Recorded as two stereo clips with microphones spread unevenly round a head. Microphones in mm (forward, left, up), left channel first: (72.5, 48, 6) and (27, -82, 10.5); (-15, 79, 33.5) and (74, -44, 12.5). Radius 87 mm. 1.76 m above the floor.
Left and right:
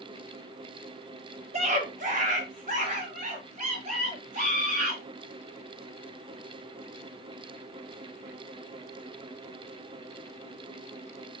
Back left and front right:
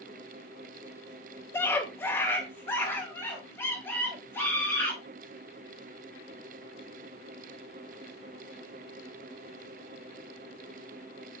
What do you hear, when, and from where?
1.5 s a scream: 160° right, 0.7 m